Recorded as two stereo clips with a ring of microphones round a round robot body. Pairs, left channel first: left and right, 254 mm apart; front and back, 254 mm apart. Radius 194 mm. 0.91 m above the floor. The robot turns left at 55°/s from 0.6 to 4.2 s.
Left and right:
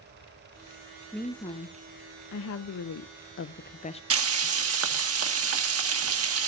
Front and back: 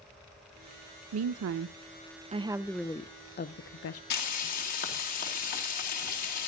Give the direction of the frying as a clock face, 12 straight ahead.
2 o'clock.